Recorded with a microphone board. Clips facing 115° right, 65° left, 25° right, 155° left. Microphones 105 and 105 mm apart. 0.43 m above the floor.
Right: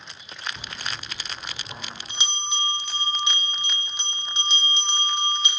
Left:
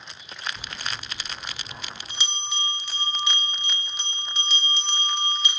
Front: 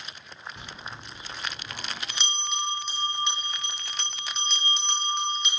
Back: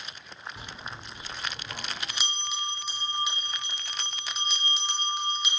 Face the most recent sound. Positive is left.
turn(degrees=-130)